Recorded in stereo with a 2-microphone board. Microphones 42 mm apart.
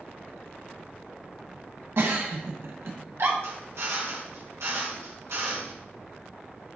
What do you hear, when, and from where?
2.0 s a giggle: 60° right (ahead or behind), 1.5 m
3.4 s a drill: 70° right (ahead or behind), 2.5 m